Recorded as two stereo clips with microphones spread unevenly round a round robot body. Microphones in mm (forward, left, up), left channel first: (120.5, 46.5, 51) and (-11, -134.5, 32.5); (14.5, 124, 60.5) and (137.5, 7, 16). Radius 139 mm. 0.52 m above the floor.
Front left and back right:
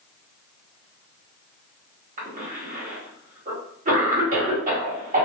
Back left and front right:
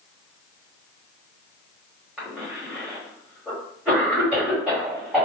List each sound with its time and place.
2.2 s a cough: 105° right, 1.7 m